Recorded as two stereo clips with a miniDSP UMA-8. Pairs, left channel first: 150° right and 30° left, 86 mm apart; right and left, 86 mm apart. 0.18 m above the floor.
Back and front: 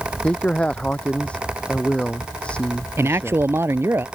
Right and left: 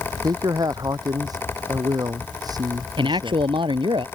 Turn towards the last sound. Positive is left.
turn(degrees=90)